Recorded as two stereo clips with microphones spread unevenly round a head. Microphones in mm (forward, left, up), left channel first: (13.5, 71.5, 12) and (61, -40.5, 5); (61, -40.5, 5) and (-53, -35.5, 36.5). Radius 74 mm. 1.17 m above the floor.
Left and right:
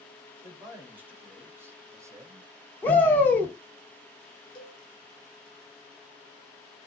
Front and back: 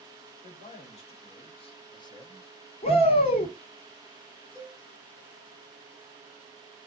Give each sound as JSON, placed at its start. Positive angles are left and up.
{"t": 0.4, "sound": "a man speaking", "azimuth_deg": 10, "distance_m": 2.0}
{"t": 2.8, "sound": "a shout", "azimuth_deg": 35, "distance_m": 1.7}
{"t": 4.5, "sound": "a cowbell", "azimuth_deg": 60, "distance_m": 1.3}